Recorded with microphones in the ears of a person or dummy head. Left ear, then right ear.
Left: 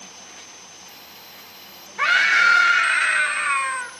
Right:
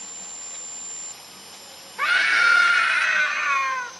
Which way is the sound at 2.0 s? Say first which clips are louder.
Left 2 dB; 20° left (ahead or behind).